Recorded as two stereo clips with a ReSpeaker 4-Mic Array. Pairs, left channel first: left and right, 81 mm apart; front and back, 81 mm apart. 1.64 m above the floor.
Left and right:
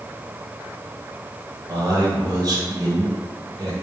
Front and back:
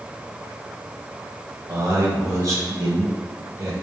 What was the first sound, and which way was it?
A man speaking, 130° right.